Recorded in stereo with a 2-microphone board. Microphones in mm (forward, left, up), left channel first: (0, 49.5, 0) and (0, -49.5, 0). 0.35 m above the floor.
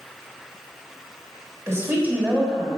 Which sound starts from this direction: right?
A woman speaking, at 1.7 s.